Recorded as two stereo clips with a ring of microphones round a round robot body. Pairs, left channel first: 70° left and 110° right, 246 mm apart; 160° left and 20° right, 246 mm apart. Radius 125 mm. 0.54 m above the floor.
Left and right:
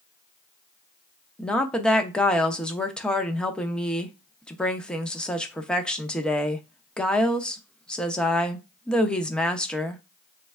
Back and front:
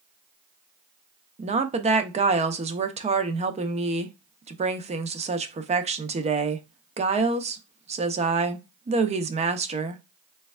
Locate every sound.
1.4 s a woman speaking: 15° right, 0.6 m